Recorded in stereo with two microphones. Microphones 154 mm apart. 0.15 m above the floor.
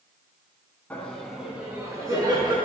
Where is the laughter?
10° left (ahead or behind), 1.7 m; by 2.6 s 35° right (ahead or behind), 2 m.